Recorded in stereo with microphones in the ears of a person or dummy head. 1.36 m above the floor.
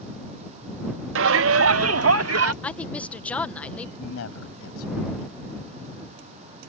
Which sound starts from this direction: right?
A shout, at 1.1 s.